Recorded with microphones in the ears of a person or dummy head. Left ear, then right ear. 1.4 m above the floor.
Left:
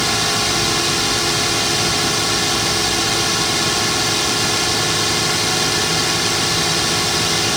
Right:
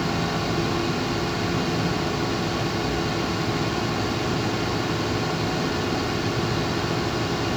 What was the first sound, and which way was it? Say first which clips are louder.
A drone: left 8 dB; 65° left (ahead or behind).